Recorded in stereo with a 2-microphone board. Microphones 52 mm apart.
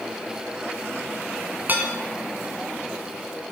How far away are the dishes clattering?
About 1.4 m.